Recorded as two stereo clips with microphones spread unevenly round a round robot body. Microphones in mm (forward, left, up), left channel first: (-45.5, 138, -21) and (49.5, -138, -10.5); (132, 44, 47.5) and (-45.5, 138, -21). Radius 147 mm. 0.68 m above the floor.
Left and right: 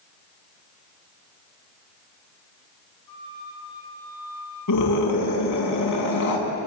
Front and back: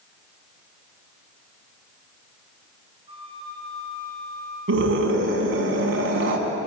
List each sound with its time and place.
3.1 s a flute: 85° left, 7.5 m
4.7 s a scream: 140° left, 7 m